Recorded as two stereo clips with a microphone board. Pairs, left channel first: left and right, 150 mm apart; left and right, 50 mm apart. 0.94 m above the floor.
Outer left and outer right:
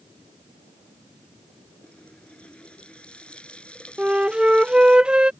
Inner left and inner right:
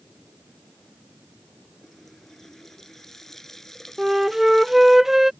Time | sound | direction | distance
1.8 | a running tap | 5° left (ahead or behind) | ?
4.0 | a flute | 5° right (ahead or behind) | ?